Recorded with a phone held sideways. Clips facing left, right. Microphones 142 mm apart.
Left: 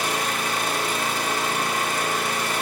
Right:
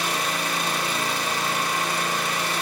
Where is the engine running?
50° left (ahead or behind), 1.8 m.